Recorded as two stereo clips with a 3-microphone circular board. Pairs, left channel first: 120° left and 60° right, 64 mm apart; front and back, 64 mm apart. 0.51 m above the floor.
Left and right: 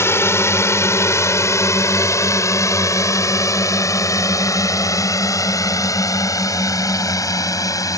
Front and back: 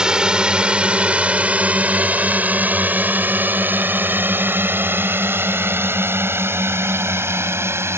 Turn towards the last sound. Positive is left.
turn(degrees=135)